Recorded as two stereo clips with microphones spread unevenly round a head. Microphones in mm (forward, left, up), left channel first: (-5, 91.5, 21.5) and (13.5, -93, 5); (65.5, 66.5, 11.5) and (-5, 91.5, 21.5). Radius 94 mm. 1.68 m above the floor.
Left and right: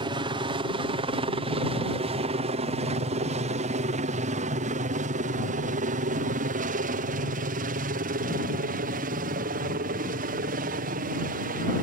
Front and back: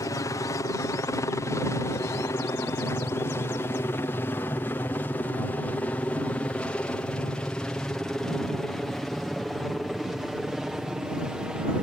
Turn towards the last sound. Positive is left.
turn(degrees=-115)